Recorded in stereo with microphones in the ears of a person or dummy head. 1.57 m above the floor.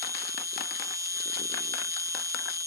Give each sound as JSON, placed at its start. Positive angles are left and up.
{"t": 0.0, "sound": "an insect", "side_deg": -20}